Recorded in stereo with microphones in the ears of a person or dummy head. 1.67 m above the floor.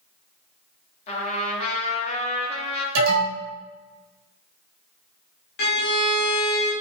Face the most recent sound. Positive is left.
turn(degrees=65)  # may be behind; listen again after turning